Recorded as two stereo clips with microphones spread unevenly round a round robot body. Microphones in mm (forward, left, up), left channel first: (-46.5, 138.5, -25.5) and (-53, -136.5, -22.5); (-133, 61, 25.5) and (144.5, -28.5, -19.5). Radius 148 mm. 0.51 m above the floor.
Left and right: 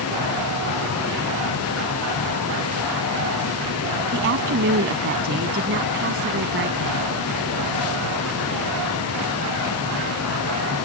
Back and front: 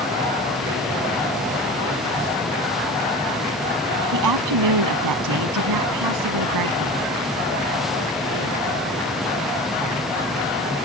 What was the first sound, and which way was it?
A woman speaking, 40° right.